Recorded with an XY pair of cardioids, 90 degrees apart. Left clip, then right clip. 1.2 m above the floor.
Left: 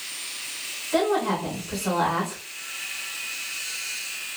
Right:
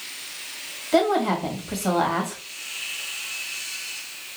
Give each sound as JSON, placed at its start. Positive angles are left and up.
{"t": 0.9, "sound": "a woman speaking", "azimuth_deg": -60, "distance_m": 1.9}